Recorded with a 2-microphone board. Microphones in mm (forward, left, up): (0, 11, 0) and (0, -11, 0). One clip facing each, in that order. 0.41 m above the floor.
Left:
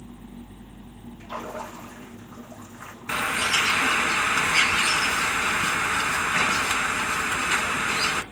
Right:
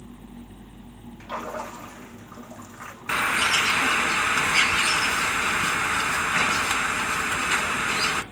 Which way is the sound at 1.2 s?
65° right (ahead or behind).